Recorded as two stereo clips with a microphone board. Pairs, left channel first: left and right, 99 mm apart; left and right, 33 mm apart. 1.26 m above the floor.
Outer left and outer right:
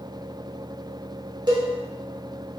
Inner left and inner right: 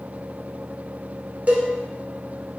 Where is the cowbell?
45° right (ahead or behind), 0.6 m.